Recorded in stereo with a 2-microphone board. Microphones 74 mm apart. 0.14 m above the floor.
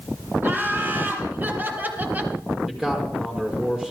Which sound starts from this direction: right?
Laughter, at 0.4 s.